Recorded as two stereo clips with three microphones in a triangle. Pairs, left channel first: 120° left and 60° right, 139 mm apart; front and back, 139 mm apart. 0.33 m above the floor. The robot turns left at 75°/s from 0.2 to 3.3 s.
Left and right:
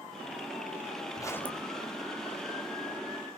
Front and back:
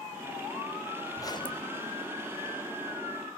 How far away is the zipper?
About 1.4 m.